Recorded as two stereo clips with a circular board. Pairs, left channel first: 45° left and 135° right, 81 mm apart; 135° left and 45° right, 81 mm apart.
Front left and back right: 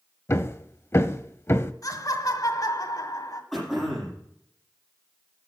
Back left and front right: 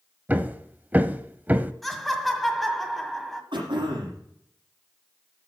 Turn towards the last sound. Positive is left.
turn(degrees=-40)